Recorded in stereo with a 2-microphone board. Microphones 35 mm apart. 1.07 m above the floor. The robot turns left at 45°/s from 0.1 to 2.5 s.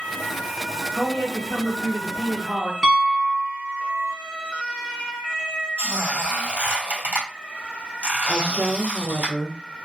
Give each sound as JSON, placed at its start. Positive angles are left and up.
{"t": 1.0, "sound": "a woman speaking", "azimuth_deg": 30, "distance_m": 0.7}
{"t": 2.8, "sound": "a piano", "side_deg": -10, "distance_m": 0.8}
{"t": 5.8, "sound": "a squeak", "side_deg": -45, "distance_m": 1.4}
{"t": 8.3, "sound": "a woman speaking", "side_deg": -30, "distance_m": 0.6}